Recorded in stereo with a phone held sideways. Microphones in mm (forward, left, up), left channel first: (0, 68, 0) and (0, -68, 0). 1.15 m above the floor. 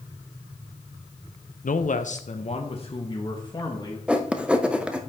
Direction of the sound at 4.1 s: 10° right (ahead or behind).